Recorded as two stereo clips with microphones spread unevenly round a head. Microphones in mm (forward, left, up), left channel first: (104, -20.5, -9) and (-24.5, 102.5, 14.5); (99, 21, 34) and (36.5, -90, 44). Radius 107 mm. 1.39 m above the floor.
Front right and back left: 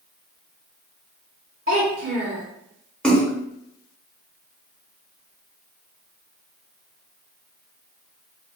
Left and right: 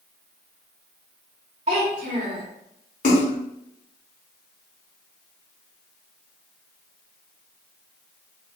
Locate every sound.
1.7 s a child speaking: 175° right, 0.6 m
3.0 s a splash: 40° left, 0.9 m